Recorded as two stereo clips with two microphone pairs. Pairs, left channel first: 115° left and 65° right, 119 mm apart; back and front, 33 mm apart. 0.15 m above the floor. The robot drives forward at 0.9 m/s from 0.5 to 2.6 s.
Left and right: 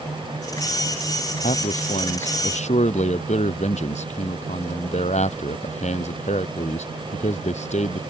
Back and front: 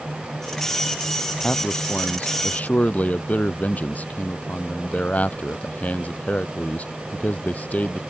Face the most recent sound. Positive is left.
turn(degrees=135)